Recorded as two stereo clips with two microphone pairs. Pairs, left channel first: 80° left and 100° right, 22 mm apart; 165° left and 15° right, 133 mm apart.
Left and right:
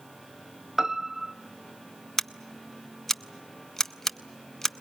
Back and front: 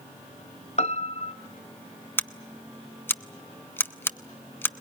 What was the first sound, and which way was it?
A piano, 160° right.